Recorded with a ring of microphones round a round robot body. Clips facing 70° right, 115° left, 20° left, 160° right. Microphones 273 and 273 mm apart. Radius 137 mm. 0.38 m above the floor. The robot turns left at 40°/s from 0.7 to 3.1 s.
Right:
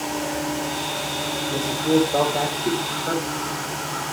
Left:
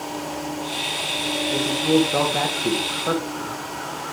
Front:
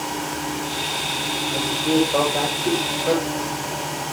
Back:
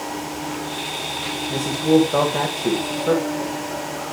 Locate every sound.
1.5 s a man speaking: 165° right, 2 m; by 3.5 s 135° left, 2 m